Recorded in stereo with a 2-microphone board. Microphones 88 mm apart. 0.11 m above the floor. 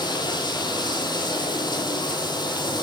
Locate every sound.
0.0 s running water: 55° left (ahead or behind), 1.1 m